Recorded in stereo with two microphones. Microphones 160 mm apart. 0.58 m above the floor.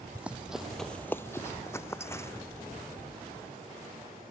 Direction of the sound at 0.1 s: 10° right (ahead or behind).